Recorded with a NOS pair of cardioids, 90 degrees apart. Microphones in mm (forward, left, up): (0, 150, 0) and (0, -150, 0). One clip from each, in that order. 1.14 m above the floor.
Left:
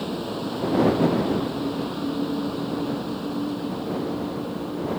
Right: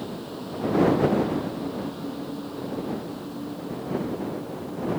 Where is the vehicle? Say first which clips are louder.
Left 6 dB; 55° left.